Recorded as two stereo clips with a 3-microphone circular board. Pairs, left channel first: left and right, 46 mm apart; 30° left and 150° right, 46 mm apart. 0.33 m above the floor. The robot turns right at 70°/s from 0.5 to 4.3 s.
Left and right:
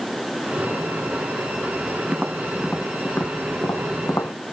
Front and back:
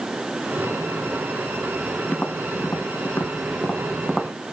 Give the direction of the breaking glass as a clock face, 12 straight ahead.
No breaking glass in this recording.